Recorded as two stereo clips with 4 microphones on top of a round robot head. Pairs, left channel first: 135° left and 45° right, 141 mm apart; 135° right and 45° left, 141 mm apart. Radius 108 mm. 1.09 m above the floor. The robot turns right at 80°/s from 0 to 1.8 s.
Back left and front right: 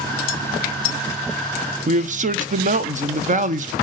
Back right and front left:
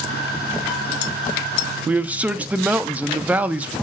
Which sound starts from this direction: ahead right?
A man speaking, at 1.9 s.